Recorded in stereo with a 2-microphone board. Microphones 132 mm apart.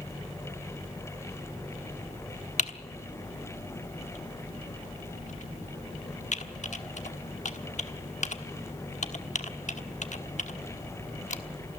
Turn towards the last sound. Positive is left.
turn(degrees=65)  # may be behind; listen again after turning